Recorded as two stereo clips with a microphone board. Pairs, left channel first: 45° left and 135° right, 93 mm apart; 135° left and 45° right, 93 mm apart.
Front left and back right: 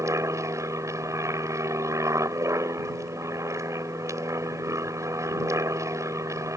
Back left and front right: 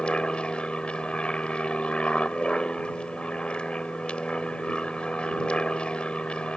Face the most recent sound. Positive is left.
turn(degrees=-155)